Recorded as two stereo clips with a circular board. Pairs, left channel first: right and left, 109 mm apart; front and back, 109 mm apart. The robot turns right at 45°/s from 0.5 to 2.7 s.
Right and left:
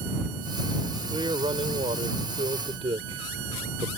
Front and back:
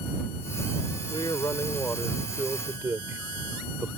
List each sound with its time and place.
1.1 s a man speaking: 45° left; by 3.9 s 115° left